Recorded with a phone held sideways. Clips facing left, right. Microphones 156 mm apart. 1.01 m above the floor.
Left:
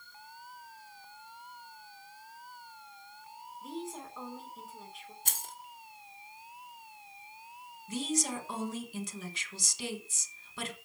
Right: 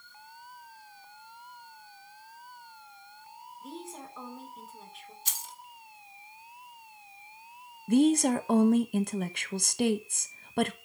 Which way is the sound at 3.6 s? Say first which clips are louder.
Left 2 dB; centre (ahead or behind).